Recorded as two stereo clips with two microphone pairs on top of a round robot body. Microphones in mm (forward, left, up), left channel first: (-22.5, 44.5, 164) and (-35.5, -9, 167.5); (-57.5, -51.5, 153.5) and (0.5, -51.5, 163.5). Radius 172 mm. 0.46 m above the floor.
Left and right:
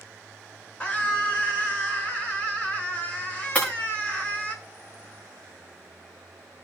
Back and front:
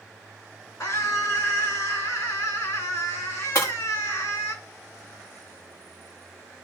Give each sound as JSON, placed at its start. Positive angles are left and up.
{"t": 0.8, "sound": "a scream", "azimuth_deg": 140, "distance_m": 7.0}
{"t": 3.5, "sound": "breaking glass", "azimuth_deg": 140, "distance_m": 6.0}